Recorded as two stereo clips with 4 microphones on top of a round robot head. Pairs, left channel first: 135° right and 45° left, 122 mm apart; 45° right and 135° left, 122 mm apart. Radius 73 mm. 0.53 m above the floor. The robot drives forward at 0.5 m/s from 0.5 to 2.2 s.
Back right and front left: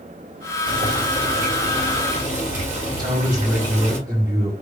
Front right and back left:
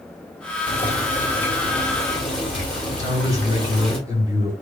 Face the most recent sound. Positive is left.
turn(degrees=90)